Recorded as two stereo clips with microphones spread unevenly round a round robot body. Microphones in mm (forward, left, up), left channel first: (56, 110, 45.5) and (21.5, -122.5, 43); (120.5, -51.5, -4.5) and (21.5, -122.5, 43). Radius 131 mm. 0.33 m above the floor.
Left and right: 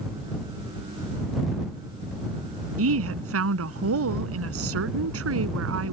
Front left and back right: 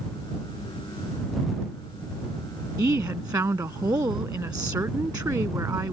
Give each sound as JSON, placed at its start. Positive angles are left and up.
{"t": 2.8, "sound": "a woman speaking", "azimuth_deg": -75}